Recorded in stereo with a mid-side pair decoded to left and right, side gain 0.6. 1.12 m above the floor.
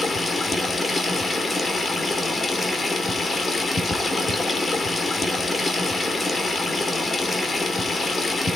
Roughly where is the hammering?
I don't hear hammering.